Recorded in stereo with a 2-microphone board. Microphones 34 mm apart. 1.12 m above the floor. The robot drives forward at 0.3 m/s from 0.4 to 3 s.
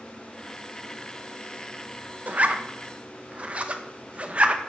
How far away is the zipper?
About 0.5 m.